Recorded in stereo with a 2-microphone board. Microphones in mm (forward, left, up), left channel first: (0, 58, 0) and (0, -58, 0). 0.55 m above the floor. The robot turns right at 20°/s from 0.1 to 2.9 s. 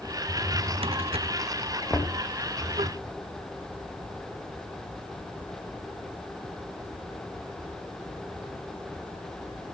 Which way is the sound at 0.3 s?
40° right (ahead or behind).